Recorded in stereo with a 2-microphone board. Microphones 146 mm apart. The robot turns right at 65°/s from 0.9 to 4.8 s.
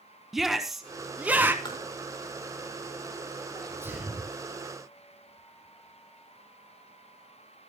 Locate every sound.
0.3 s a shout: centre (ahead or behind), 1.2 m; by 1.6 s 15° right (ahead or behind), 1.2 m
1.6 s tapping: 30° left (ahead or behind), 4 m; by 1.8 s 20° left (ahead or behind), 4 m
3.5 s a sneeze: 35° right, 5.5 m; by 4.3 s 15° left, 5.5 m